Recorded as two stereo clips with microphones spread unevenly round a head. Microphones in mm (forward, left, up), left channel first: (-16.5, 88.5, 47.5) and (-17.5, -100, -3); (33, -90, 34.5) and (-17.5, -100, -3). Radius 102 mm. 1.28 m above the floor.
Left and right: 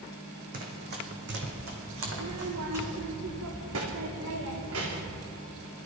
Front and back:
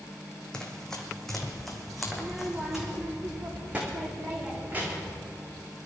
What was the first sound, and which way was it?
Running footsteps, 35° right.